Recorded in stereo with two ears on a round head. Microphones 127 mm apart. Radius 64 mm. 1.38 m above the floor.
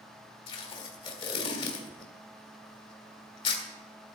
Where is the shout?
I don't hear a shout.